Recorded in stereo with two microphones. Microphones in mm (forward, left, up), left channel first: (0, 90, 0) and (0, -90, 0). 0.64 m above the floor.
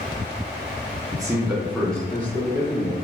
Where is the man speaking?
20° right (ahead or behind), 0.5 m; by 2.9 s 20° left (ahead or behind), 1.1 m.